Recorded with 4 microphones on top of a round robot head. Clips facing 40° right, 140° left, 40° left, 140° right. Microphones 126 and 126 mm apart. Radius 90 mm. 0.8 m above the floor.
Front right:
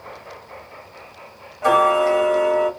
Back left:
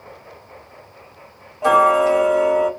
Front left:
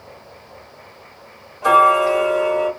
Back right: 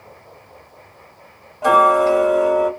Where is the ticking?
165° right, 1.6 m.